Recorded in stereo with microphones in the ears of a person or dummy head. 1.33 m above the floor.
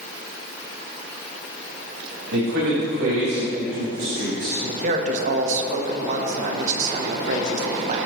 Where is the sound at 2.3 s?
65° right (ahead or behind), 3.5 m; by 4.5 s 55° right (ahead or behind), 2 m.